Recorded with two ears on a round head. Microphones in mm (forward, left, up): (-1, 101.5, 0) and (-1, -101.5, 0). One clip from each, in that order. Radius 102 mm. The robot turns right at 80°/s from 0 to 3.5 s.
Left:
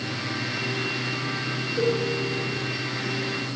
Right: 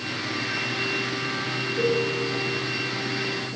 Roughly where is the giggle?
No giggle in this recording.